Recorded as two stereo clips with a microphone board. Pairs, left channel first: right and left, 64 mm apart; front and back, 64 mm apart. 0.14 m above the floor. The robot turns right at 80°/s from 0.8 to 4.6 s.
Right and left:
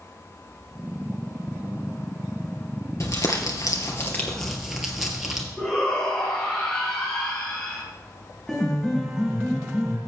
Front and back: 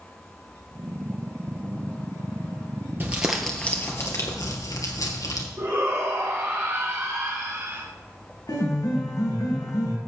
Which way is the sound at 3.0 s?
125° right.